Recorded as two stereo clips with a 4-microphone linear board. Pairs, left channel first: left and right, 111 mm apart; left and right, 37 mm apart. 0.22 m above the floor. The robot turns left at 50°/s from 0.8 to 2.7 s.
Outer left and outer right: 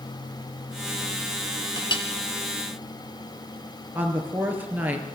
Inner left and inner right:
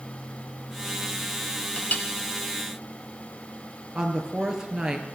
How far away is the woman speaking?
About 3.5 m.